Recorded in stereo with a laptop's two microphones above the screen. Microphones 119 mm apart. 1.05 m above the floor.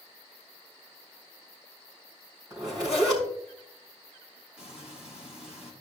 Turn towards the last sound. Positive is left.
turn(degrees=-10)  # may be behind; listen again after turning